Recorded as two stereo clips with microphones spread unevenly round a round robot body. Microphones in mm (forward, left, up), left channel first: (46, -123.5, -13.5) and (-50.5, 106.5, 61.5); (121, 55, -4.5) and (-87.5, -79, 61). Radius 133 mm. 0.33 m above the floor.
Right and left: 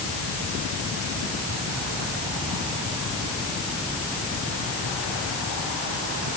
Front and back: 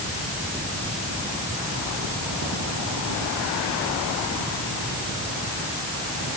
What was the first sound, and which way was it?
Only background noise.